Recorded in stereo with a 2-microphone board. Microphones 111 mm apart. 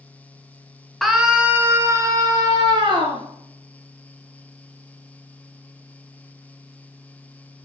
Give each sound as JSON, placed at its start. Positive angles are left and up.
{"t": 1.0, "sound": "a scream", "side_deg": 0, "distance_m": 2.0}